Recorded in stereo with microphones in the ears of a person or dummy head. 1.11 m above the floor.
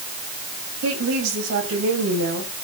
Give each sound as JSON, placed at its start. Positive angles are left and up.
{"t": 0.8, "sound": "a woman speaking", "side_deg": -75, "distance_m": 6.0}